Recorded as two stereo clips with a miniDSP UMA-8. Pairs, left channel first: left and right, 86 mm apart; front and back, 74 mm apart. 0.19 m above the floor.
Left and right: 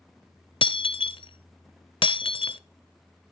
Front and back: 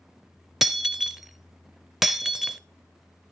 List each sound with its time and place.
0.6 s breaking glass: 95° left, 0.6 m